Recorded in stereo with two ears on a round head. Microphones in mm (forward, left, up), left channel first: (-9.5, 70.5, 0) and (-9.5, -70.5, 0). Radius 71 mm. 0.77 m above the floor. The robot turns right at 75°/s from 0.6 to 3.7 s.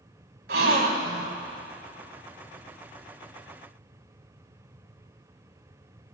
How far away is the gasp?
About 1.2 m.